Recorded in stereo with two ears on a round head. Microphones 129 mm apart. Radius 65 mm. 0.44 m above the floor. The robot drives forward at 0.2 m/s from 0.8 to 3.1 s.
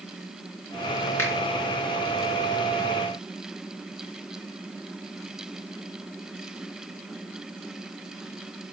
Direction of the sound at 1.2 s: 15° left (ahead or behind).